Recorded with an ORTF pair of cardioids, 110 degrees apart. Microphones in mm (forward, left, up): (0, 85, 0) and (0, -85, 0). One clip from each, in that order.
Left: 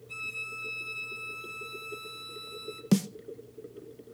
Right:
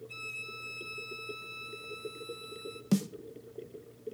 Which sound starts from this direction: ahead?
A violin, at 0.1 s.